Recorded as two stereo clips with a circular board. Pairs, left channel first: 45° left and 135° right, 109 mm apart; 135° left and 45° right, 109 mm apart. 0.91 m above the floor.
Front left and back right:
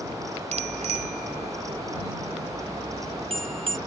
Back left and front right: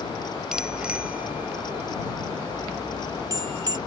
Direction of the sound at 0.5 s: 130° right.